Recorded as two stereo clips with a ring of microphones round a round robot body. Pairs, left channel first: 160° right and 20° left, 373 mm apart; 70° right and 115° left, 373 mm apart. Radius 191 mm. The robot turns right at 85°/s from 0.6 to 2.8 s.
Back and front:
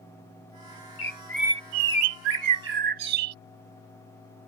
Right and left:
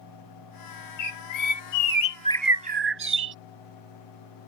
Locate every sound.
1.0 s a bird: 100° right; by 3.4 s 55° left